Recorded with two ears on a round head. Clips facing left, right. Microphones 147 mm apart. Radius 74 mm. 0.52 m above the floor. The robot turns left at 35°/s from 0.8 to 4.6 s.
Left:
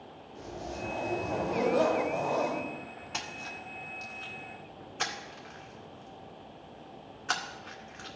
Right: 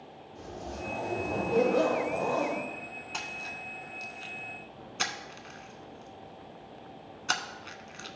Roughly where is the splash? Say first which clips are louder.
Left 1 dB; centre.